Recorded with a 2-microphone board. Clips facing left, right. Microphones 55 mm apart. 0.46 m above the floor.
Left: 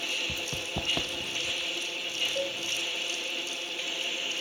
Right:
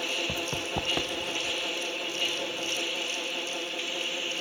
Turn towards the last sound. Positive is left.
turn(degrees=40)  # may be behind; listen again after turning